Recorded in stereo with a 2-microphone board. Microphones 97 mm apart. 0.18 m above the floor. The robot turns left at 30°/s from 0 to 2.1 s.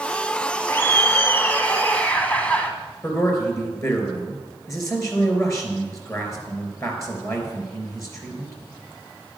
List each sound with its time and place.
0.7 s laughter: 25° left (ahead or behind), 1.2 m; by 2.7 s 15° left (ahead or behind), 1.2 m
3.0 s a man speaking: 30° left (ahead or behind), 3.5 m